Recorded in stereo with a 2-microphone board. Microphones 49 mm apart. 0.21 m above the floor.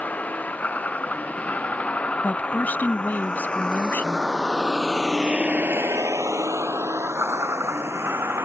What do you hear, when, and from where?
0.0 s a vehicle: 30° left (ahead or behind); by 8.5 s 50° right (ahead or behind)
2.2 s a woman speaking: 35° left (ahead or behind)